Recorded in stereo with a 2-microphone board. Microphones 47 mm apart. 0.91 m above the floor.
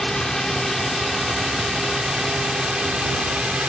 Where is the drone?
10° left (ahead or behind); by 3.7 s 20° right (ahead or behind).